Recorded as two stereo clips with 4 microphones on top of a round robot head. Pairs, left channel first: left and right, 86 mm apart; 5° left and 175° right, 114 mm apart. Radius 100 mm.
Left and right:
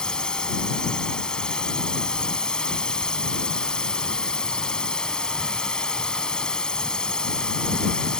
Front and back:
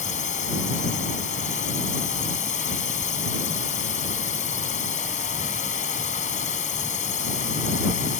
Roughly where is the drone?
Ahead.